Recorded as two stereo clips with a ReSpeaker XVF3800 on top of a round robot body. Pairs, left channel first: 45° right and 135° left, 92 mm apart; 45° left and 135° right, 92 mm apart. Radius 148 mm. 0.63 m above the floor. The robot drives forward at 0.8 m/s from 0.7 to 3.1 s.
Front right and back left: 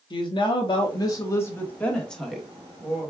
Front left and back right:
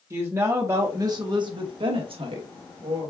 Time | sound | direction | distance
0.1 | a woman speaking | 75° right | 1.3 m